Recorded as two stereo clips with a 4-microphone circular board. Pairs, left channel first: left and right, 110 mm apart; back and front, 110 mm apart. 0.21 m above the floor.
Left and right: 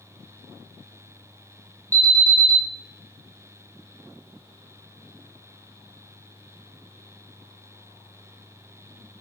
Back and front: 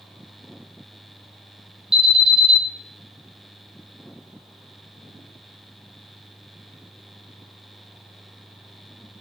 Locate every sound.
1.9 s an alarm: 75° right, 2.5 m